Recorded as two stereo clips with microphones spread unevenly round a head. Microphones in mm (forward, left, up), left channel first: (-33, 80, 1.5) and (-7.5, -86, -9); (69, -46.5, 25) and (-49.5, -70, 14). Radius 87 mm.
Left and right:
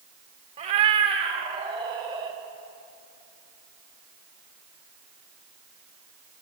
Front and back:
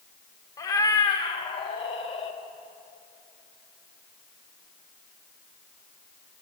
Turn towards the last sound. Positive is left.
turn(degrees=-15)